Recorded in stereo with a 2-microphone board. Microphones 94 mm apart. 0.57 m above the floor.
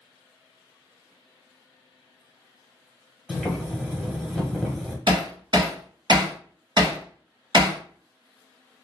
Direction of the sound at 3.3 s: 5° left (ahead or behind).